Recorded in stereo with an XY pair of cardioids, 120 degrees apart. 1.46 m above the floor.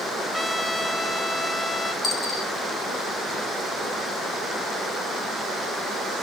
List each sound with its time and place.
0.3 s a trumpet: 15° left, 0.8 m
2.0 s a dropped coin: 30° left, 4.5 m